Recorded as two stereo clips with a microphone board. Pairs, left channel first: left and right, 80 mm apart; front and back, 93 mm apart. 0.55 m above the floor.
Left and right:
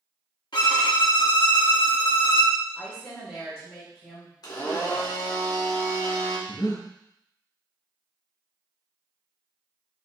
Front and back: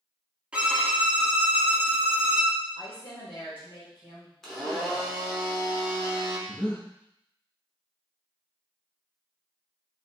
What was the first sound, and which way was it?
A violin, 100° left.